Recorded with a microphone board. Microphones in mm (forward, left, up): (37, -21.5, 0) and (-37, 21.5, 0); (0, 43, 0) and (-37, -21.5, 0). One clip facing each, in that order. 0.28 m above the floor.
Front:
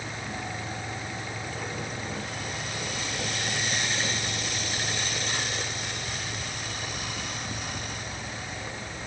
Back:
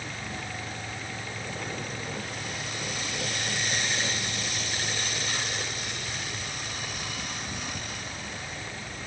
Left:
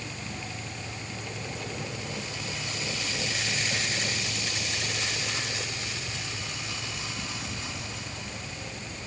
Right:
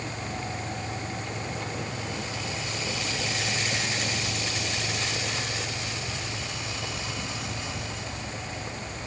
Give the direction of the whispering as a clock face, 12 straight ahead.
I don't hear whispering.